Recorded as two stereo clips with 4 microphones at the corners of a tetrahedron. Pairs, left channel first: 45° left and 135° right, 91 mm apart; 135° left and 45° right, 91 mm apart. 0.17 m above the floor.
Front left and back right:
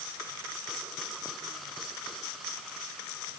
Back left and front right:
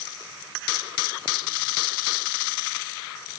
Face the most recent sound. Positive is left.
No sound to turn to.